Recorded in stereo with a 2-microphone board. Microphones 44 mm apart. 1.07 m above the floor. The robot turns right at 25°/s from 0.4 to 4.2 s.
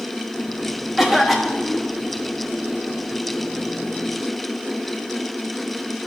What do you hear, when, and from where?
1.0 s a cough: 10° right (ahead or behind), 1.7 m; by 1.9 s 15° left (ahead or behind), 1.7 m